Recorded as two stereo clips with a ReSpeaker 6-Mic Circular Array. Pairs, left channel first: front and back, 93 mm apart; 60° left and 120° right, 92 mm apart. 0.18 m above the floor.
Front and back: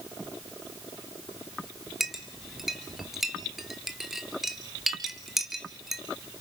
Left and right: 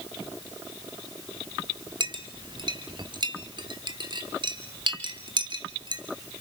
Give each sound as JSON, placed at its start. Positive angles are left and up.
{"t": 2.0, "sound": "a clink", "azimuth_deg": -95, "distance_m": 2.0}